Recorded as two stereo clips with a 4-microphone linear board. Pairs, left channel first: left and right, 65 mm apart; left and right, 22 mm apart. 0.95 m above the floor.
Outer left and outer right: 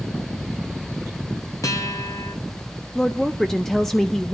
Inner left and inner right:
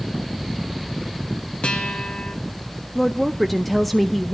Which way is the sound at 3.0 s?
10° left (ahead or behind).